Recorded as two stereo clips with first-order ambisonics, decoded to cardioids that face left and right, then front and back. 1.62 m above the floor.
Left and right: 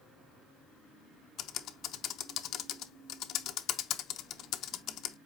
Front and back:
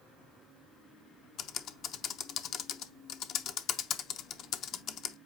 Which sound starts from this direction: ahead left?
Typing on a keyboard, at 1.4 s.